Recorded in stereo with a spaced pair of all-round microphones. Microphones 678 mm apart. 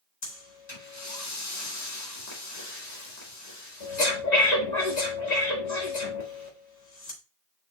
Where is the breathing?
70° left (ahead or behind), 2 m.